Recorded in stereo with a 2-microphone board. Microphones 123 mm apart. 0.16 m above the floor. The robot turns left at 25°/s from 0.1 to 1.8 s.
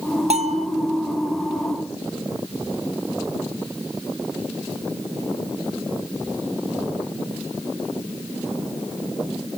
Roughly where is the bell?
Right.